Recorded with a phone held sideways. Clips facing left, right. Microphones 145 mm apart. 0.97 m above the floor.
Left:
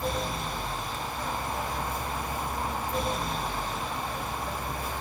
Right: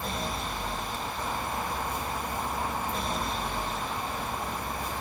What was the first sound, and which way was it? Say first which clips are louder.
A fan: left 2 dB; 10° left (ahead or behind).